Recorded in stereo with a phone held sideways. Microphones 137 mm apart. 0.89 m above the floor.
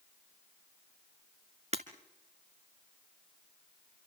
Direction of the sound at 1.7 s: 50° right (ahead or behind).